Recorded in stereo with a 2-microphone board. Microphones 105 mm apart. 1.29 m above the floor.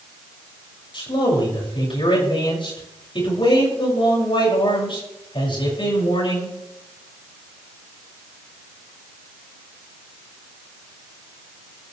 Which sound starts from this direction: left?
A man speaking, at 0.9 s.